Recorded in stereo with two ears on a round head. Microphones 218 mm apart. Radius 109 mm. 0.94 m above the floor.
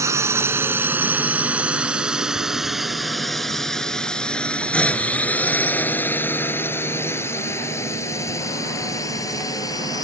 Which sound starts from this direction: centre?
A drone, at 0.0 s.